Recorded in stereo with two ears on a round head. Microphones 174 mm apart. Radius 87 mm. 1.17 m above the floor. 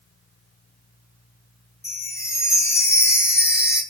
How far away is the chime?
About 3 m.